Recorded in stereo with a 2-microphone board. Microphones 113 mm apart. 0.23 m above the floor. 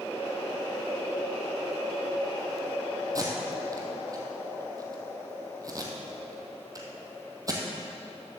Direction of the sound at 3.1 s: 30° right (ahead or behind).